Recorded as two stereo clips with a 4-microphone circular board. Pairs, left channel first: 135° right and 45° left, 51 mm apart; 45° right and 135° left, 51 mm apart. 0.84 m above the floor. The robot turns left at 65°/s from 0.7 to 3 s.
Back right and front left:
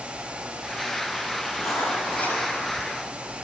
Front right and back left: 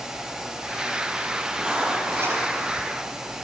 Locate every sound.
1.6 s writing: 150° right, 5 m; by 2.4 s 155° left, 5 m